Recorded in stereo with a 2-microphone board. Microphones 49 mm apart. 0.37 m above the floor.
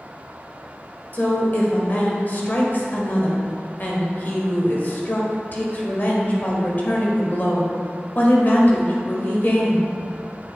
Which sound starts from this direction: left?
A woman speaking, at 1.1 s.